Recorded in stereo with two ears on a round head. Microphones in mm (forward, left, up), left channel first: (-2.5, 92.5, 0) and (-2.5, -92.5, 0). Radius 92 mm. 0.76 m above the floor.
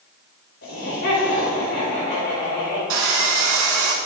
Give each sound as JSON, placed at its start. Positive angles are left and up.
{"t": 0.6, "sound": "laughter", "side_deg": 55, "distance_m": 3.5}
{"t": 2.9, "sound": "sawing", "side_deg": -70, "distance_m": 1.8}